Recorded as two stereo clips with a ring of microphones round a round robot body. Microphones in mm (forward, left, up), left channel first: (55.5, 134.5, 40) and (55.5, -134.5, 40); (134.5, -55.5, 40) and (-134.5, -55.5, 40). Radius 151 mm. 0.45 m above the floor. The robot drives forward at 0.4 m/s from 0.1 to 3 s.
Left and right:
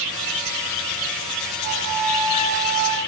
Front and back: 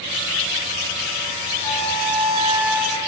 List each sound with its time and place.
1.6 s a flute: 85° right, 9 m; by 3.0 s 90° right, 9 m